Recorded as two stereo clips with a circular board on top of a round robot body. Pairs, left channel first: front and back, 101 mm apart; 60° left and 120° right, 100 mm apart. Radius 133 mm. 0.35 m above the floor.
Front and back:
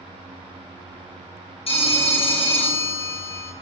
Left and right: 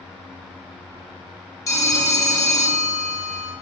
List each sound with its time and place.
1.7 s a phone ringing: 5° left, 1.0 m